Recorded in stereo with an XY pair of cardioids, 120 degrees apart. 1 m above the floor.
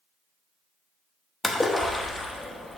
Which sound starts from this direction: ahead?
A splash, at 1.4 s.